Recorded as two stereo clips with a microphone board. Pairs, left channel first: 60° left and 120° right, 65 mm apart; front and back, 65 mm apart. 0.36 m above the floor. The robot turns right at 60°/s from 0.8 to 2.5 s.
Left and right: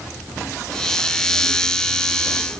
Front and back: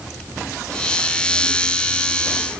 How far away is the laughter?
I don't hear laughter.